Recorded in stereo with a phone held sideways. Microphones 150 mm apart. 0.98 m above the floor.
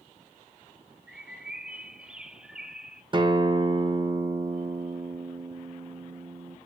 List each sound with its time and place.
1.1 s a bird: 5° right (ahead or behind), 0.6 m
3.1 s a guitar: 35° right (ahead or behind), 1.0 m